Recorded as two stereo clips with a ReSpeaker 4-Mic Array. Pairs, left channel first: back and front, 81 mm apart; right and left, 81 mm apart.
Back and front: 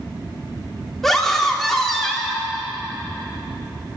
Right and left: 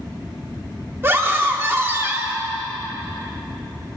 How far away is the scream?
About 0.9 m.